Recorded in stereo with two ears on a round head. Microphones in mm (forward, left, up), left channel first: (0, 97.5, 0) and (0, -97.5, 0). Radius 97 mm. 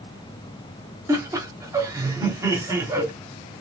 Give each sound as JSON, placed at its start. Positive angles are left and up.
{"t": 1.1, "sound": "laughter", "side_deg": -15, "distance_m": 1.1}